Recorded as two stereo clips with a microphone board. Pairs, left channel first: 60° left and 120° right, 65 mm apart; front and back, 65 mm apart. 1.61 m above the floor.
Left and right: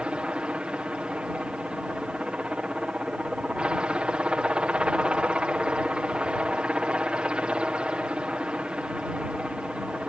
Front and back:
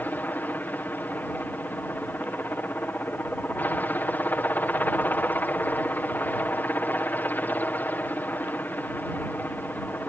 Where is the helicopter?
50° right.